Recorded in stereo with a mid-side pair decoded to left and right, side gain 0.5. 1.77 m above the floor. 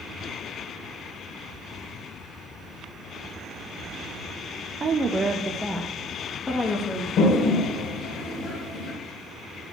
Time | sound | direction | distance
4.8 | a woman speaking | 35° right | 0.9 m
7.2 | a toilet flushing | 65° left | 2.5 m